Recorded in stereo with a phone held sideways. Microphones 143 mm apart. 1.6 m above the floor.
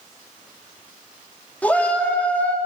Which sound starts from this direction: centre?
A shout, at 1.6 s.